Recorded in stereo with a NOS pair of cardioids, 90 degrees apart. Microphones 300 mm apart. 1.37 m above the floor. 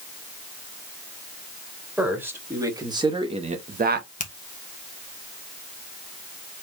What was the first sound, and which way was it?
A man speaking, 5° right.